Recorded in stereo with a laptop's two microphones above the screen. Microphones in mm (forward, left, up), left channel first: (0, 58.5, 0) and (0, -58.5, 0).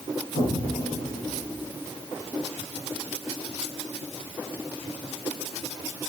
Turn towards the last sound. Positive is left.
turn(degrees=75)  # may be behind; listen again after turning